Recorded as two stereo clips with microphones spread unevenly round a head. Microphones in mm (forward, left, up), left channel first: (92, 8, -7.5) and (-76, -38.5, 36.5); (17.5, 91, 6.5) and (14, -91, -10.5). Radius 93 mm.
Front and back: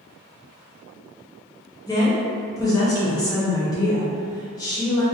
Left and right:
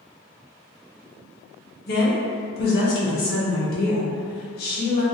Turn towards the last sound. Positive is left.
turn(degrees=95)